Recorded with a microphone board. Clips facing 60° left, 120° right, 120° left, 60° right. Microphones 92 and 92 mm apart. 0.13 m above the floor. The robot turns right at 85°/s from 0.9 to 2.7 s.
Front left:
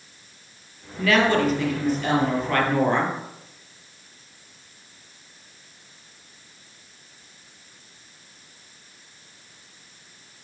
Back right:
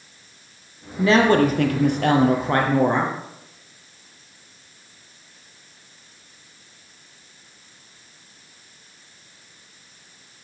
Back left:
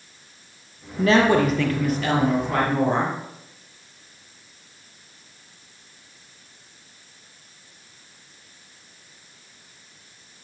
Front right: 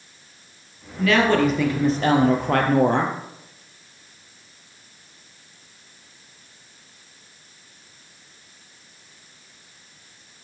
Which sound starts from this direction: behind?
A woman speaking, at 1.0 s.